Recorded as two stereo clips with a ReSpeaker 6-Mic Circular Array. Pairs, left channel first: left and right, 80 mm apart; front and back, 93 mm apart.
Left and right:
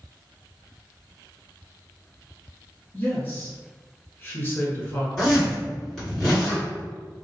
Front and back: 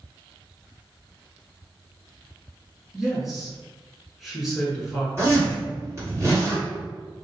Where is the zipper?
165° left, 1.8 m.